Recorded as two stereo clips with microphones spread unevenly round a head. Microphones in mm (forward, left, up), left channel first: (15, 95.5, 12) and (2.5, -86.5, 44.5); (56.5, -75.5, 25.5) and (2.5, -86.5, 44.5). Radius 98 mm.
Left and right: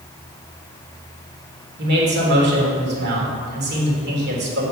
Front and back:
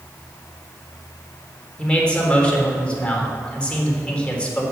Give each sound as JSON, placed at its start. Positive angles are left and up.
{"t": 1.8, "sound": "a man speaking", "azimuth_deg": -60, "distance_m": 3.5}